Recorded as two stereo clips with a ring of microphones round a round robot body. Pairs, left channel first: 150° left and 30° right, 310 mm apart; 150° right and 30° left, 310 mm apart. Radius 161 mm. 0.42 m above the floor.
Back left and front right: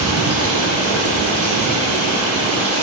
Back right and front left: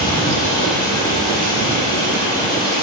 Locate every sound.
0.0 s running water: 75° right, 2.5 m